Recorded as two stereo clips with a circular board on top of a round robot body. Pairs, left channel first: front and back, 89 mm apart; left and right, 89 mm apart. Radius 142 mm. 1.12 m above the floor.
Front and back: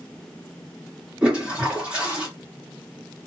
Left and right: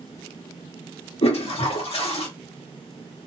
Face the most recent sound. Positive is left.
turn(degrees=100)